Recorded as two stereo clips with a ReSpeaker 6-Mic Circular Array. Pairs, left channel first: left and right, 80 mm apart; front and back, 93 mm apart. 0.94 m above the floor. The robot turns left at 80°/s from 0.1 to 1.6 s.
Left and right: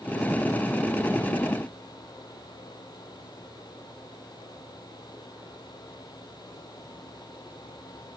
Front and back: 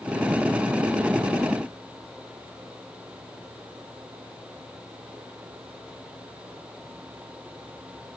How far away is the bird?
I don't hear a bird.